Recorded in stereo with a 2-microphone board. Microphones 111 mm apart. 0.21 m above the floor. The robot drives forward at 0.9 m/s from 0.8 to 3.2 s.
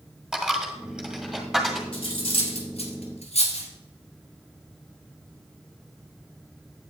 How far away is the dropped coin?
About 1.6 m.